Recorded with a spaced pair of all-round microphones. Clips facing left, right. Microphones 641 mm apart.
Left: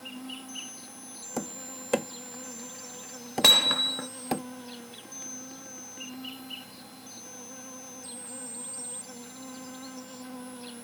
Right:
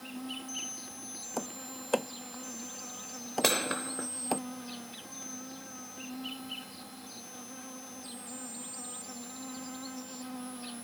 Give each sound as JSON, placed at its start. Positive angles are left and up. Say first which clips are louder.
{"t": 0.0, "sound": "an insect", "louder": "even", "side_deg": -10}
{"t": 1.4, "sound": "tapping", "louder": "left 3 dB", "side_deg": 45}
{"t": 3.4, "sound": "hammering", "louder": "right 3 dB", "side_deg": 30}